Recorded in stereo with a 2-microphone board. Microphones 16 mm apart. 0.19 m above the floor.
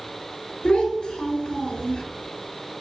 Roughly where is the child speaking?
Left.